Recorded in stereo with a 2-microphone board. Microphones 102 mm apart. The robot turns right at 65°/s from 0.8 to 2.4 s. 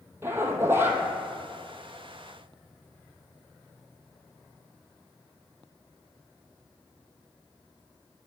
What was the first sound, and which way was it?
A zipper, 25° right (ahead or behind).